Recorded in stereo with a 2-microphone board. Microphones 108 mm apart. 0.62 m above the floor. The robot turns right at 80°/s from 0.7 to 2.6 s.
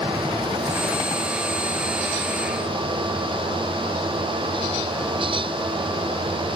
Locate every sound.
Only background noise.